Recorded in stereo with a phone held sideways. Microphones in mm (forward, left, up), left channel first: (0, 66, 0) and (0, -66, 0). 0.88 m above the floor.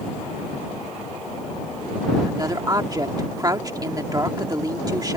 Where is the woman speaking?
30° right (ahead or behind).